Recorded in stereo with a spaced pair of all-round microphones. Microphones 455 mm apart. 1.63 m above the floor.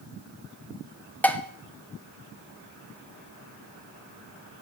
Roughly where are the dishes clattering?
Centre.